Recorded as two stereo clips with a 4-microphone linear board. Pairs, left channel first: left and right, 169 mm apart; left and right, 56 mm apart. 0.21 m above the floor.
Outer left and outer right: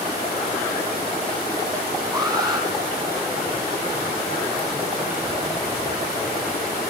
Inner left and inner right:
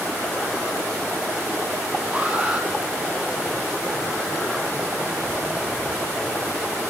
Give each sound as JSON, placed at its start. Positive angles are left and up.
{"t": 2.1, "sound": "an alarm", "side_deg": -25, "distance_m": 5.5}